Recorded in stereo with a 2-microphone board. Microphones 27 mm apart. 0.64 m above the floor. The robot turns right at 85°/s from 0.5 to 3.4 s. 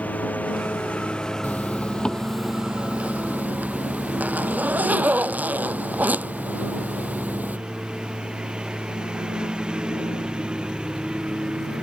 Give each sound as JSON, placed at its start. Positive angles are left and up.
{"t": 0.0, "sound": "a lawn mower", "azimuth_deg": 80}
{"t": 1.4, "sound": "a zipper", "azimuth_deg": 95}